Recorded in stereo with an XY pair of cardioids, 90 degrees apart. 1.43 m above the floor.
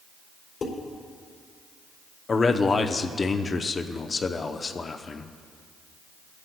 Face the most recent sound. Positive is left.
turn(degrees=40)